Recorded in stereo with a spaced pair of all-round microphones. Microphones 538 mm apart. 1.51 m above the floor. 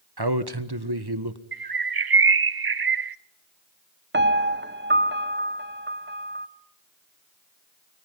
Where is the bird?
45° right (ahead or behind), 0.6 m.